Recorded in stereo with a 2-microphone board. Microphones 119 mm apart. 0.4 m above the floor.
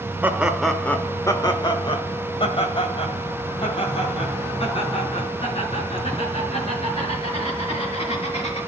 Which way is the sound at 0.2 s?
15° right (ahead or behind).